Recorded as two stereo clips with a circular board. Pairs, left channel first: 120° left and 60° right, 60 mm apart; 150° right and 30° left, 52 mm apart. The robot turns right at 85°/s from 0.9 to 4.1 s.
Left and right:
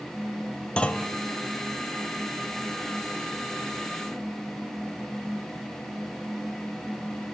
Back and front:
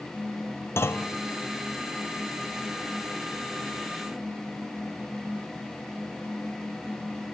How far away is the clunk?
About 0.6 m.